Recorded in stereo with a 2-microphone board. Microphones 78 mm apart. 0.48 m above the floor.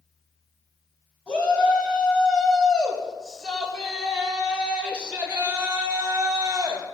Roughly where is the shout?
Centre.